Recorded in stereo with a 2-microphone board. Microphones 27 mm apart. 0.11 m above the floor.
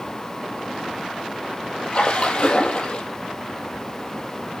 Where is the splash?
40° left (ahead or behind), 1.8 m.